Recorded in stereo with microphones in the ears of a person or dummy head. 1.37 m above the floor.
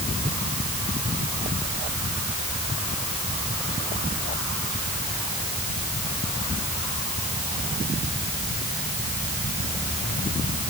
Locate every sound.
Only background noise.